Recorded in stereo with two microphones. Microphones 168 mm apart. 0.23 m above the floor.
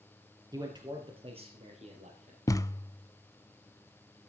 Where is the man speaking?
20° right (ahead or behind), 4 m; by 2.4 s 45° right (ahead or behind), 5 m.